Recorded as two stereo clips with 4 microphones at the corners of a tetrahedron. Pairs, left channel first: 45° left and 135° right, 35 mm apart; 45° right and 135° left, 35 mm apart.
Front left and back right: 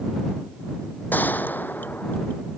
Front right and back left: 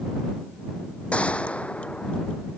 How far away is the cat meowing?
No cat meowing in this recording.